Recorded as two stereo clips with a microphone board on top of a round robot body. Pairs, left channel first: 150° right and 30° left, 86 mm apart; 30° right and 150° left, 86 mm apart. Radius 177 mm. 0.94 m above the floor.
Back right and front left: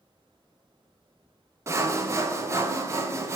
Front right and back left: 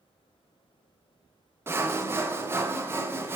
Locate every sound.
1.7 s sawing: 90° left, 0.6 m